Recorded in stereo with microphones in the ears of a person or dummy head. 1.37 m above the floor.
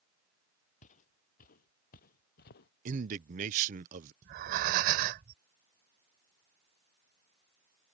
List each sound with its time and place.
0.8 s footsteps: 45° left (ahead or behind); by 2.7 s 60° left (ahead or behind)
2.9 s a man speaking: 40° right (ahead or behind)
4.2 s breathing: 45° right (ahead or behind)